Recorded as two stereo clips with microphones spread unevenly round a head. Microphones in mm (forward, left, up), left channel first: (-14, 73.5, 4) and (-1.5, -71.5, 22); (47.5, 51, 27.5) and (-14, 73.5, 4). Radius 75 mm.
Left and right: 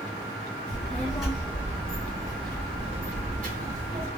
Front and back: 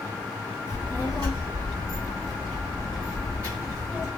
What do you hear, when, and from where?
0.7 s a child speaking: straight behind, 1.6 m; by 4.1 s 100° right, 1.4 m